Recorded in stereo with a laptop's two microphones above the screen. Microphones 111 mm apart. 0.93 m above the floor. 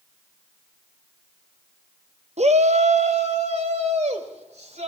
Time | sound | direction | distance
2.4 | a shout | 75° right (ahead or behind) | 1.0 m